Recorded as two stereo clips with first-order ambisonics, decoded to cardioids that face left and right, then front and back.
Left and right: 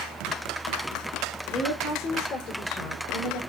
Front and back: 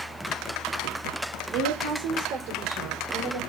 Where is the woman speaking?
155° left, 3 m; by 3.4 s 130° left, 4.5 m.